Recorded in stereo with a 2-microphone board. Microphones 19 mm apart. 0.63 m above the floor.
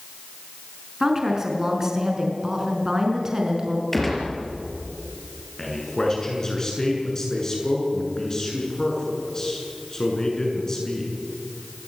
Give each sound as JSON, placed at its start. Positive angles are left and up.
{"t": 1.0, "sound": "a woman speaking", "side_deg": -20, "distance_m": 6.0}
{"t": 3.9, "sound": "a gunshot", "side_deg": 10, "distance_m": 6.0}
{"t": 5.6, "sound": "a man speaking", "side_deg": 25, "distance_m": 7.5}